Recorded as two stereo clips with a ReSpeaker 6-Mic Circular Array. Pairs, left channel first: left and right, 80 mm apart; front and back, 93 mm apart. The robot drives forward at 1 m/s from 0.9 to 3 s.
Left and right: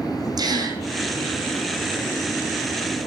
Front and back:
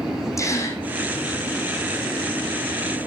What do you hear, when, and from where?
0.4 s a gasp: 55° right, 4 m